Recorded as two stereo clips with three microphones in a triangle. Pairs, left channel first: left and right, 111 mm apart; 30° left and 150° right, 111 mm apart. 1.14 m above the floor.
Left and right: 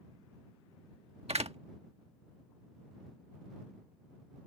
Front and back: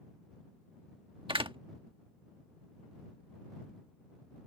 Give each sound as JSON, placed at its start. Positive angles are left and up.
{"t": 1.3, "sound": "a door slam", "azimuth_deg": -110}